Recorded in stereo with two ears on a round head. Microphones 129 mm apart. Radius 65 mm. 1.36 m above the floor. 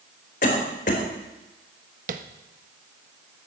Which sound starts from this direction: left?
A cough, at 0.4 s.